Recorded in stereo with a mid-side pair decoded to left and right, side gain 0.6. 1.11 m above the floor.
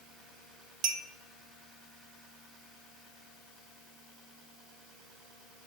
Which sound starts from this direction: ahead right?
A clink, at 0.8 s.